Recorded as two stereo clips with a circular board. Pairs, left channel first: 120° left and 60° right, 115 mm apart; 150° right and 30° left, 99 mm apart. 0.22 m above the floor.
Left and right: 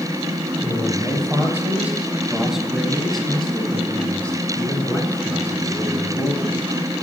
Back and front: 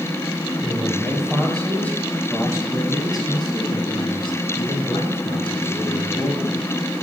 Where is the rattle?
No rattle in this recording.